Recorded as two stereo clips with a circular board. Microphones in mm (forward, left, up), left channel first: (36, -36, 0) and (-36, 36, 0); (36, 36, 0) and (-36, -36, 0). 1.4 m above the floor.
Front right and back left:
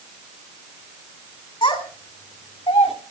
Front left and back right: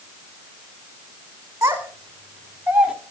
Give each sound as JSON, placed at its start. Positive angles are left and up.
{"t": 1.6, "sound": "a child speaking", "azimuth_deg": -70, "distance_m": 3.5}